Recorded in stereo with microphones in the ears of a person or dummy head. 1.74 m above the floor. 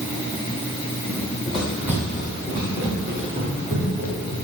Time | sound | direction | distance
1.1 | running footsteps | 10° left (ahead or behind) | 2.5 m